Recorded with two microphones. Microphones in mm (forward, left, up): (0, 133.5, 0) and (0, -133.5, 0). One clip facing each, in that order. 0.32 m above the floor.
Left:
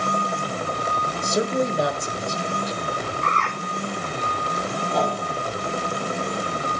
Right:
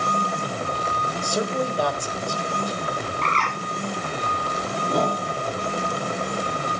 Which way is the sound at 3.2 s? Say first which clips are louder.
Even; 80° right.